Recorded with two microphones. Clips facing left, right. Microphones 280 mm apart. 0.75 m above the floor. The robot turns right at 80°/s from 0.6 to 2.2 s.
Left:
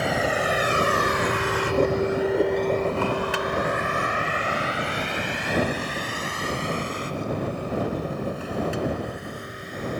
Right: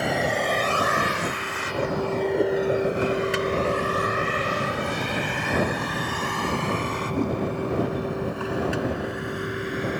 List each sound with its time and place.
0.0 s a vehicle: centre (ahead or behind); by 10.0 s 80° right